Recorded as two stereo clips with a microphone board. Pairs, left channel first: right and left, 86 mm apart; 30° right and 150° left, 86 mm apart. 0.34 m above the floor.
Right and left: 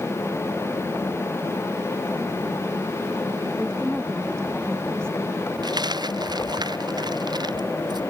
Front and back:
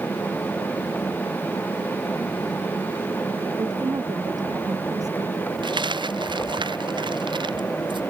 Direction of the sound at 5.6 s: 125° left.